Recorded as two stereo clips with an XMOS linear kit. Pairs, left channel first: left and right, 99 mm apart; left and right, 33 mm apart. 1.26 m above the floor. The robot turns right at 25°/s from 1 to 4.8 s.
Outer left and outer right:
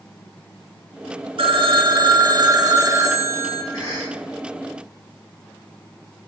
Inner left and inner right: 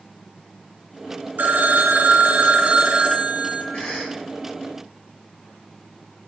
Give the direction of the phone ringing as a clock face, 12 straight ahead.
3 o'clock.